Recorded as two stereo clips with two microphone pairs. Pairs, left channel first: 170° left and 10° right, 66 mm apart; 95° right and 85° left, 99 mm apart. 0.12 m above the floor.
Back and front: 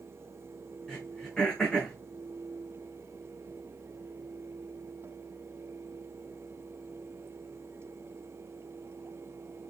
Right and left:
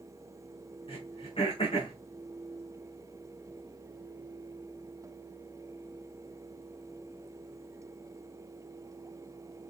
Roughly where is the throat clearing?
Behind right.